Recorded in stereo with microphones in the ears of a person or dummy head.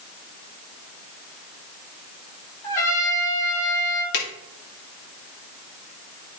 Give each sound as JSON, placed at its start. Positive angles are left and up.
{"t": 2.6, "sound": "a trumpet", "side_deg": 15, "distance_m": 1.7}
{"t": 4.1, "sound": "a drawer", "side_deg": 60, "distance_m": 1.9}